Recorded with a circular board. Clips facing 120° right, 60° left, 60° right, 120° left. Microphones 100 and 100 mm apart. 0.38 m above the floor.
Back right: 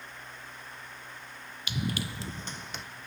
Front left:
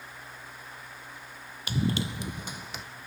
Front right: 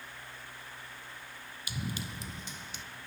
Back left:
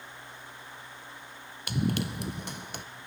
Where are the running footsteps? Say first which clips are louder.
Front left 5 dB, back left 10 dB; 105° left, 0.7 m; by 2.8 s 150° left, 1.1 m.